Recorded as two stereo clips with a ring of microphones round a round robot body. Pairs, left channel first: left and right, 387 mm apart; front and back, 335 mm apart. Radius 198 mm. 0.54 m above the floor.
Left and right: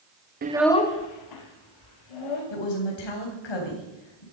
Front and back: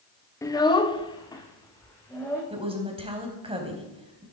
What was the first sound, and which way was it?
A child speaking, 70° right.